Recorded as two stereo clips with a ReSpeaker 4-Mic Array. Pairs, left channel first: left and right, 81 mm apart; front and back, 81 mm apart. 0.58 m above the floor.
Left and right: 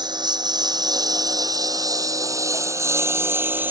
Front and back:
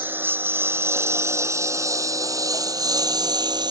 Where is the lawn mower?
115° right; by 3.7 s 155° right.